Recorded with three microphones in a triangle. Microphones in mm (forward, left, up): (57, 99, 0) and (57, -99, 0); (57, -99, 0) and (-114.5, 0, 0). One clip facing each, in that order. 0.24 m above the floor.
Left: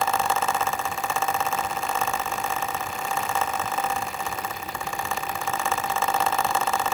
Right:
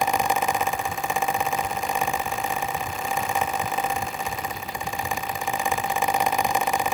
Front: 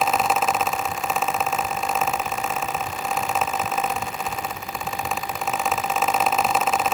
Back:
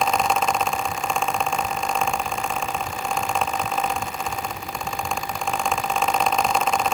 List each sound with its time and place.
Only background noise.